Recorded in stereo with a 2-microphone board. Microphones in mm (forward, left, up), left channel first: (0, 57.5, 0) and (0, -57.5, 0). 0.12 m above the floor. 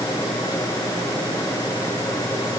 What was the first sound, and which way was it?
Only background noise.